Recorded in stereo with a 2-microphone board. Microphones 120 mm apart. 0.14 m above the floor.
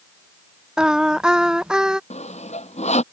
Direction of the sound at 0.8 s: 5° right (ahead or behind).